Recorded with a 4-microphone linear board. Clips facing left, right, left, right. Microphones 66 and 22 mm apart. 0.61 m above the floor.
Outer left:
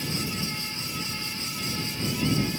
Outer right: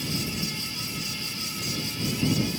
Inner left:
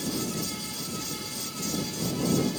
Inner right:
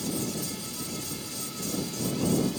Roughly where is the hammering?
I don't hear hammering.